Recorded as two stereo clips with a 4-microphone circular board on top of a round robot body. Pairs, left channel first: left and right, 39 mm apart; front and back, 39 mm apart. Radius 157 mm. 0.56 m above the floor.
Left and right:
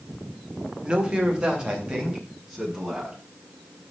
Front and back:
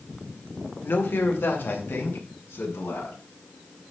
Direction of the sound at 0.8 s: 25° right.